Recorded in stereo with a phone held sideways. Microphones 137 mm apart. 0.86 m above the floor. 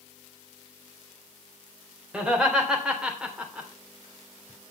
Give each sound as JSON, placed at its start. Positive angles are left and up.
{"t": 2.1, "sound": "laughter", "side_deg": -5, "distance_m": 3.5}